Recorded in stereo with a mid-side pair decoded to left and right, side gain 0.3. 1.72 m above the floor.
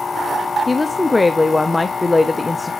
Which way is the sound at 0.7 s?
30° left.